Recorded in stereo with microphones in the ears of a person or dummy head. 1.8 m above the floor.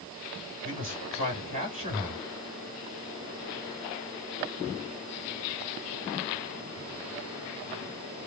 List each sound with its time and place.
0.6 s a man speaking: 35° right (ahead or behind), 3 m